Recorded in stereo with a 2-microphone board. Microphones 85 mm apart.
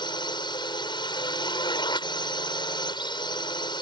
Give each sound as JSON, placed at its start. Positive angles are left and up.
{"t": 0.0, "sound": "a drone", "side_deg": 65}